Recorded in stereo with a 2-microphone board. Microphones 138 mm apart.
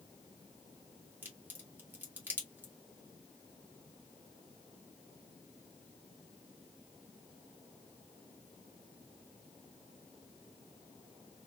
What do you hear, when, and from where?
1.2 s a crack: 15° right (ahead or behind), 1.6 m